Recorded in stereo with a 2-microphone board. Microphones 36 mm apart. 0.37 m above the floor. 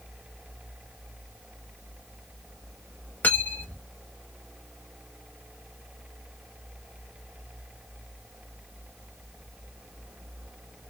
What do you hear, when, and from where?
3.2 s cutlery clinking: 65° left (ahead or behind), 1.1 m